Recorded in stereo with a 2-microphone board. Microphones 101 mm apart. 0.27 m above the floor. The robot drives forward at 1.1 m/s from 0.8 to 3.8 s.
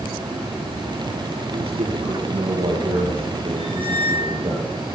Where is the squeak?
75° left (ahead or behind), 8.5 m; by 4.4 s 70° left (ahead or behind), 8.5 m.